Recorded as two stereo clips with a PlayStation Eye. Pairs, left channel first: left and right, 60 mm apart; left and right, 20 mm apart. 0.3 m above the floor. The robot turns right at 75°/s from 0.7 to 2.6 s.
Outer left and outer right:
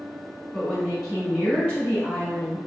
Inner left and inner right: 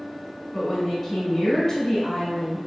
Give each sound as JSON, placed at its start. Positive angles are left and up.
{"t": 0.5, "sound": "a woman speaking", "side_deg": -15, "distance_m": 1.4}